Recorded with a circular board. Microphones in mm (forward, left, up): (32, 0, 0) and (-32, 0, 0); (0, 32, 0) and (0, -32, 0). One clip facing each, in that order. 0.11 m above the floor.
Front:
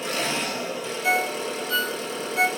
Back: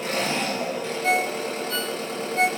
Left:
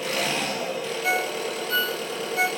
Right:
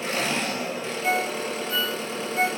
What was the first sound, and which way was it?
An engine running, 150° right.